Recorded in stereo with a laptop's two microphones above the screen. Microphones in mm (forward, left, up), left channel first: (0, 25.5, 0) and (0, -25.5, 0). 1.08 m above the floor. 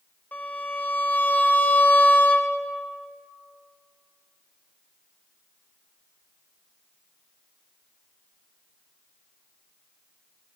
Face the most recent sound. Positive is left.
turn(degrees=30)  # may be behind; listen again after turning